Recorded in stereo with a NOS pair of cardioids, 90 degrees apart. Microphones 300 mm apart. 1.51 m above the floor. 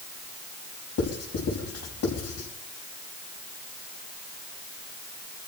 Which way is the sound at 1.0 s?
55° left.